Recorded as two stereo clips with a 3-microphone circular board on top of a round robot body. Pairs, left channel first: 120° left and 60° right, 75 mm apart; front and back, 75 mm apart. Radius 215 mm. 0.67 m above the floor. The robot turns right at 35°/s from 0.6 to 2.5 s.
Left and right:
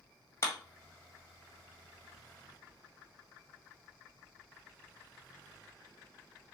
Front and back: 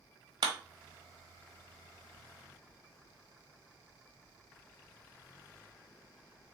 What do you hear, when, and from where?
0.4 s a clap: 170° left, 1.2 m